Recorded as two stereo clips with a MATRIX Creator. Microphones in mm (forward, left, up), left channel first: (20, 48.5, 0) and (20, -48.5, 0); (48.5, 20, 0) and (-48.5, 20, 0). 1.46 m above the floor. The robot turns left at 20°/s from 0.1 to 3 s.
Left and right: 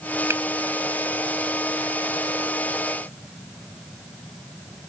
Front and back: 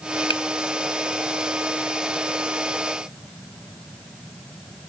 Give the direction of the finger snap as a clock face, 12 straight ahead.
1 o'clock.